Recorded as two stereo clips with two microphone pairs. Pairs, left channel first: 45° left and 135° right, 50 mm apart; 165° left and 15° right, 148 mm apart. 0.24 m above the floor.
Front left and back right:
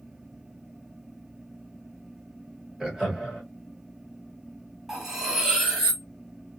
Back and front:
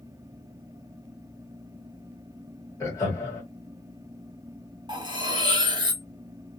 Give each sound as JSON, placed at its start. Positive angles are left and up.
{"t": 2.8, "sound": "laughter", "azimuth_deg": 160, "distance_m": 1.5}
{"t": 4.9, "sound": "cutlery clinking", "azimuth_deg": -55, "distance_m": 1.0}